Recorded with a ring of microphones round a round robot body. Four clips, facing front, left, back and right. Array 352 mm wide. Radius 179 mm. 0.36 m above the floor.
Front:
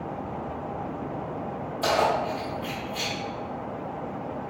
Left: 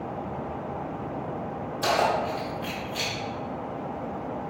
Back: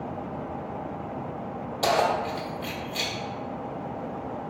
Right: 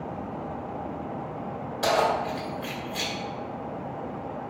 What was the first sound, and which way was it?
Keys jangling, 155° right.